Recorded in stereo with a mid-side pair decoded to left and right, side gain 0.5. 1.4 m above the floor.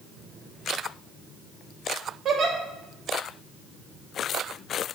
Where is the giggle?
55° right, 1.2 m.